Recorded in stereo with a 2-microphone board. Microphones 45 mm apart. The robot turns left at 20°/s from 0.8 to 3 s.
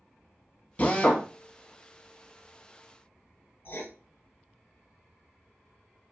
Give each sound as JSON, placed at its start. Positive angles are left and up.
{"t": 0.8, "sound": "a drill", "side_deg": 40, "distance_m": 0.7}
{"t": 3.6, "sound": "writing", "side_deg": 55, "distance_m": 0.6}